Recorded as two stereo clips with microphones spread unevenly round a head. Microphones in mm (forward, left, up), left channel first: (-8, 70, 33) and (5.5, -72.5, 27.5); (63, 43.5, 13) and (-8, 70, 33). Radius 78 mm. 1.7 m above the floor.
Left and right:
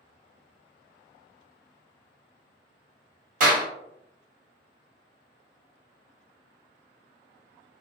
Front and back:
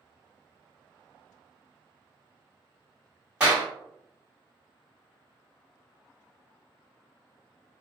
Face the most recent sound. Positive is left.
turn(degrees=-120)